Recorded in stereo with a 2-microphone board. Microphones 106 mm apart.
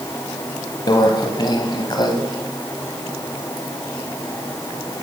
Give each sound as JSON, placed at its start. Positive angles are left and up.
{"t": 0.9, "sound": "a microwave", "side_deg": 45, "distance_m": 1.3}